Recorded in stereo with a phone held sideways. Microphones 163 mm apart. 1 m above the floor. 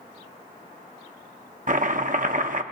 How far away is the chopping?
About 0.7 m.